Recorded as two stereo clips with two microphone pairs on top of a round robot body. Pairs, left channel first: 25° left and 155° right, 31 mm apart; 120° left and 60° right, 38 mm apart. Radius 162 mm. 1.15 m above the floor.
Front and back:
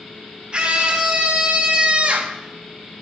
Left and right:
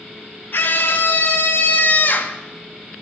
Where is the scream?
145° left, 2.5 m; by 2.4 s 160° left, 1.4 m.